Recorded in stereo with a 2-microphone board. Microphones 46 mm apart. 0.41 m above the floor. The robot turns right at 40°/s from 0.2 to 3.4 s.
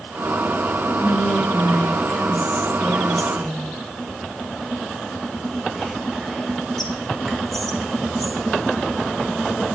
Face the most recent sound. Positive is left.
turn(degrees=5)  # may be behind; listen again after turning